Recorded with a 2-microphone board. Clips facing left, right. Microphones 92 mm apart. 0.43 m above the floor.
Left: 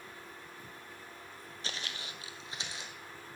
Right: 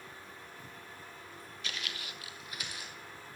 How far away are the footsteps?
About 0.6 m.